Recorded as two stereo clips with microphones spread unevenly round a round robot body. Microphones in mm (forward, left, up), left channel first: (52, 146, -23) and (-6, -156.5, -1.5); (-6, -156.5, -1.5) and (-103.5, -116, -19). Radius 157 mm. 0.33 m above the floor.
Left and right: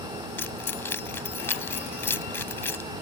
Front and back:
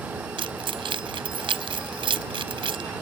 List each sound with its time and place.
0.4 s keys jangling: 160° left